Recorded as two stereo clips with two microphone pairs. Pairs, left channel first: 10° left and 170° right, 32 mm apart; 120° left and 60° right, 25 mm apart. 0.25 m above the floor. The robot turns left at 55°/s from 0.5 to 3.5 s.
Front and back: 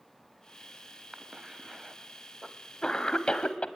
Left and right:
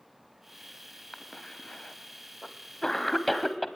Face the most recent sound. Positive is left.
turn(degrees=25)